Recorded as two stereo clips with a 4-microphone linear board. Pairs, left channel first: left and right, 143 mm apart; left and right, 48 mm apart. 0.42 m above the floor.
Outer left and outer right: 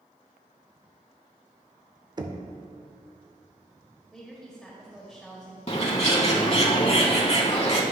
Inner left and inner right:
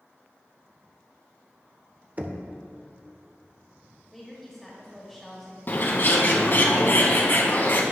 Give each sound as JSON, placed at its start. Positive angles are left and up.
{"t": 2.2, "sound": "knocking", "side_deg": -30, "distance_m": 0.5}
{"t": 4.1, "sound": "a woman speaking", "side_deg": 0, "distance_m": 1.3}
{"t": 5.7, "sound": "a bird", "side_deg": 45, "distance_m": 0.9}